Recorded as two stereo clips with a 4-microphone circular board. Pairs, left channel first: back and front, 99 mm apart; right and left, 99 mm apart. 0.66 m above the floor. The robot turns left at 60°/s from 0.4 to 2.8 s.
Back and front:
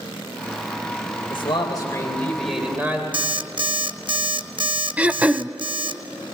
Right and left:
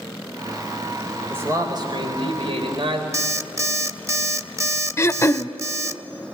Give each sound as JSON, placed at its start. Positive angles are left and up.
{"t": 1.3, "sound": "a man speaking", "azimuth_deg": 160, "distance_m": 3.5}
{"t": 3.1, "sound": "an alarm clock", "azimuth_deg": 30, "distance_m": 0.6}
{"t": 5.0, "sound": "throat clearing", "azimuth_deg": -60, "distance_m": 0.5}